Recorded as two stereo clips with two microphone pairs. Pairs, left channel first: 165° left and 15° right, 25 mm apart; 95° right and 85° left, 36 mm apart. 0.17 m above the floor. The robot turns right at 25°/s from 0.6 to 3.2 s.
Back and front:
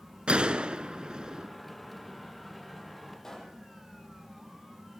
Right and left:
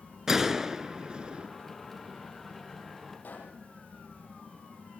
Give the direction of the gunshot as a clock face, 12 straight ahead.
12 o'clock.